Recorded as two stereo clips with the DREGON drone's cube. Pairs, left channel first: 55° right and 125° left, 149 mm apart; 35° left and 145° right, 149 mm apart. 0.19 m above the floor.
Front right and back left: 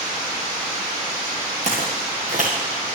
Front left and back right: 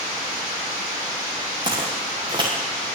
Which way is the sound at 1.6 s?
155° left.